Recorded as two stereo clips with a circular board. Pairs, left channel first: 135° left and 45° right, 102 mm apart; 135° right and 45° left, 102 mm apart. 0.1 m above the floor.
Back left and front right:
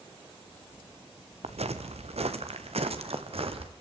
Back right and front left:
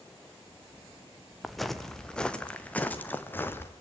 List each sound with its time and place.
1.4 s footsteps: 45° right, 1.9 m; by 3.7 s 65° right, 2.5 m